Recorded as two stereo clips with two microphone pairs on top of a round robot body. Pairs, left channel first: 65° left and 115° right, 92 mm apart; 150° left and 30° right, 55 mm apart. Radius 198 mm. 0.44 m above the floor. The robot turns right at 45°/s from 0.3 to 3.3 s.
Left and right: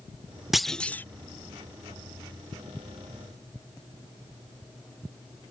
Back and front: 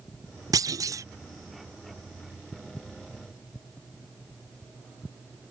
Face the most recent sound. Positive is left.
turn(degrees=95)